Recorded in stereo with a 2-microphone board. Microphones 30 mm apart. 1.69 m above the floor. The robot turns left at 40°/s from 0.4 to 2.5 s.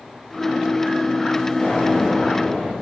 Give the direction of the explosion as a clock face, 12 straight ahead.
10 o'clock.